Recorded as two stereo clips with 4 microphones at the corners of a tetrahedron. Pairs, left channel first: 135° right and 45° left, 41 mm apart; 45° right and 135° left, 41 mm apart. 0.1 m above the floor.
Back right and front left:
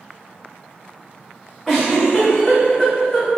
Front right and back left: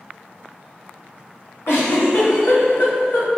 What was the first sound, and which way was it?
A giggle, 40° right.